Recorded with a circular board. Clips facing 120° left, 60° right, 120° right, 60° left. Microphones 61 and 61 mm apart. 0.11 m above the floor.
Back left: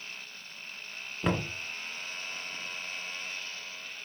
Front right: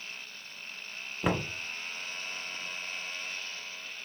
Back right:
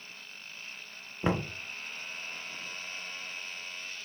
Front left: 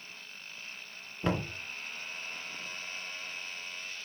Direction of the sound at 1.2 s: 130° right.